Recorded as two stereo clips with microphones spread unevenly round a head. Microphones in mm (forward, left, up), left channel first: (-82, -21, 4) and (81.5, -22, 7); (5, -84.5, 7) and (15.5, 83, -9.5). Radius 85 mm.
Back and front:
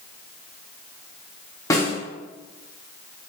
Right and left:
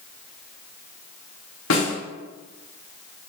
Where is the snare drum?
110° right, 3.5 m.